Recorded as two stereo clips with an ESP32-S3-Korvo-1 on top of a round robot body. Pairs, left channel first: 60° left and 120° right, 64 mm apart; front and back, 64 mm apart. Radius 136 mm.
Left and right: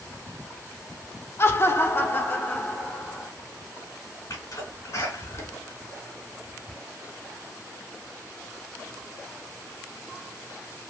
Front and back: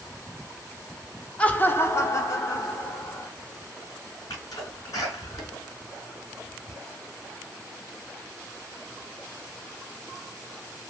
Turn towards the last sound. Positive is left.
turn(degrees=20)